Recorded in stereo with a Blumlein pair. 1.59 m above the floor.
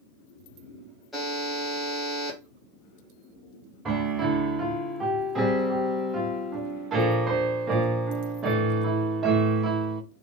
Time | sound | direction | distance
1.1 | a buzzer | 5° left | 1.8 m
3.9 | a piano | 20° right | 0.8 m